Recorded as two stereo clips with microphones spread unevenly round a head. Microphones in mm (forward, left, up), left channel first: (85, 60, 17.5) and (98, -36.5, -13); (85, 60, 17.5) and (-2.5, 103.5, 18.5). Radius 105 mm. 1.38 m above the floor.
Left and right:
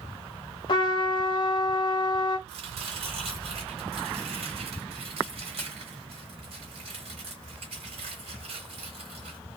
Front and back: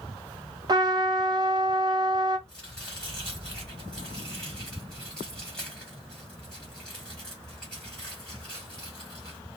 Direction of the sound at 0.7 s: 115° left.